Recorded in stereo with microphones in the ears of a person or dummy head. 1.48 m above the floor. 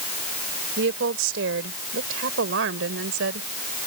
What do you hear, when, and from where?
0.8 s a woman speaking: 80° right